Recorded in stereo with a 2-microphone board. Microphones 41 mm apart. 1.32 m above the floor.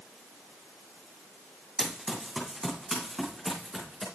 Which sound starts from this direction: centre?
Running footsteps, at 1.8 s.